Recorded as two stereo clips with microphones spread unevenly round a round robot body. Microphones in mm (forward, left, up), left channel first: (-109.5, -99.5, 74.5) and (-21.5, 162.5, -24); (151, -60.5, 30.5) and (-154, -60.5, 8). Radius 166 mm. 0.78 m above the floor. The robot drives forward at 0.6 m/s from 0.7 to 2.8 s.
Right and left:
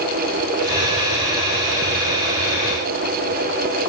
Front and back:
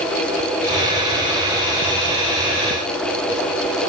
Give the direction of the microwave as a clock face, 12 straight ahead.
No microwave in this recording.